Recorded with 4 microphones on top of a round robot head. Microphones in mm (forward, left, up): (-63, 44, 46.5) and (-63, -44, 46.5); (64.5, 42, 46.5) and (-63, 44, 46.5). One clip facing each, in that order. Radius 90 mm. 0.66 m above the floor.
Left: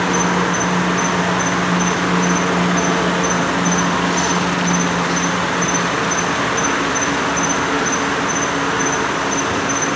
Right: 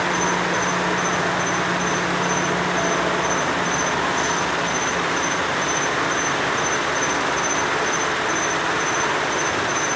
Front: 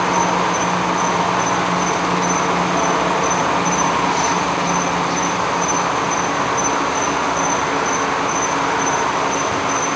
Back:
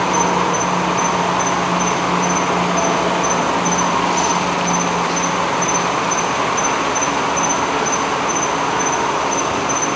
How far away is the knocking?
I don't hear knocking.